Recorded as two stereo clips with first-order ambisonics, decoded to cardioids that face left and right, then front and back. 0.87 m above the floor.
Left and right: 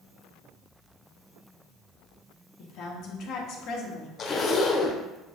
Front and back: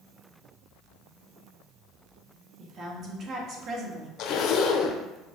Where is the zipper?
30° left, 0.9 m.